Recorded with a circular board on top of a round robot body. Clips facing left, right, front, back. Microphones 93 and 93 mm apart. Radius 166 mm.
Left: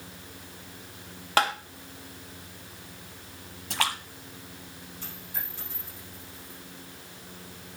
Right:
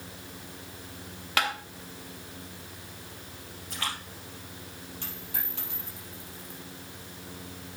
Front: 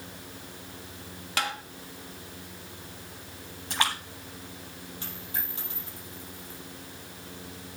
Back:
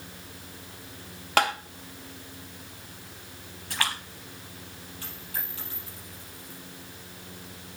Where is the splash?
70° left, 1.0 m.